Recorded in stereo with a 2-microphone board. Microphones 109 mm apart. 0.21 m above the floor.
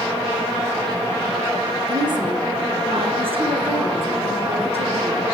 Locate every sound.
1.9 s a woman speaking: 40° right (ahead or behind), 1.7 m; by 5.2 s 65° right (ahead or behind), 5 m